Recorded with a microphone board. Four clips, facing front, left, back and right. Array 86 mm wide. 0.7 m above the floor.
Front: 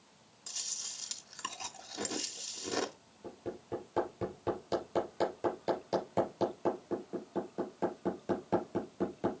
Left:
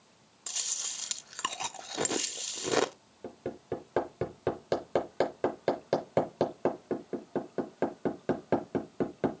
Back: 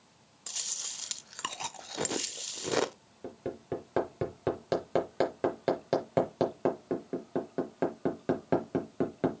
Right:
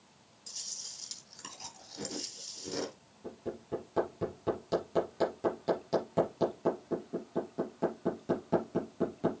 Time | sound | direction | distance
0.5 | chewing | 120° left | 0.5 m
3.2 | hammering | 140° left | 4.5 m